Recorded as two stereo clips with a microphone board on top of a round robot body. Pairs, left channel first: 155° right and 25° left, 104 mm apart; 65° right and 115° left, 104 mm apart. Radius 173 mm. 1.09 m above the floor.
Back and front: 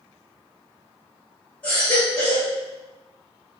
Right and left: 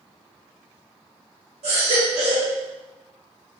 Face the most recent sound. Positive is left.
turn(degrees=125)